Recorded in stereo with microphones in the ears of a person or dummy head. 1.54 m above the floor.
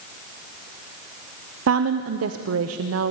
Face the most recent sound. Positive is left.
turn(degrees=-90)